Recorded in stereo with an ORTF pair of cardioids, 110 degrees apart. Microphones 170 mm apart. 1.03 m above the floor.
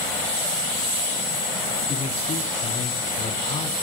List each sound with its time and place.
1.9 s a man speaking: 40° left, 2.5 m